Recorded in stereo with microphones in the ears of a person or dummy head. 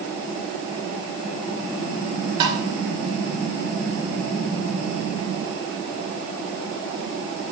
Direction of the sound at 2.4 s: 25° right (ahead or behind).